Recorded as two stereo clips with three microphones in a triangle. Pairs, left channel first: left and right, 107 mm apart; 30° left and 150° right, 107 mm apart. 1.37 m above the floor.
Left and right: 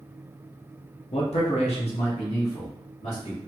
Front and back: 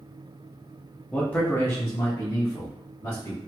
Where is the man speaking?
110° left, 0.6 m; by 3.4 s 80° left, 1.7 m.